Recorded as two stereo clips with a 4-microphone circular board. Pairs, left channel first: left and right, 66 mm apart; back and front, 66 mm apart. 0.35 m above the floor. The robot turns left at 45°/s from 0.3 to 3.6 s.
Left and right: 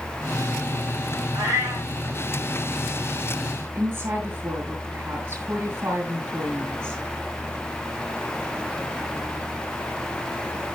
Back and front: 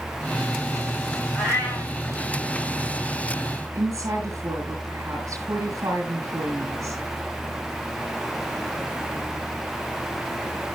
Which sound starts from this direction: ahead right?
A woman speaking, at 3.8 s.